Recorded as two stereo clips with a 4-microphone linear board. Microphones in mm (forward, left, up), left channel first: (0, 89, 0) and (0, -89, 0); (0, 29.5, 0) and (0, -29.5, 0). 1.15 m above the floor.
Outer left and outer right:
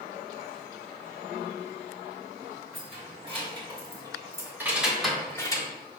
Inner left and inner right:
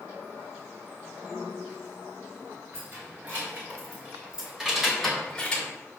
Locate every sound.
2.7 s keys jangling: 40° right (ahead or behind), 3.5 m; by 5.7 s 25° left (ahead or behind), 1.6 m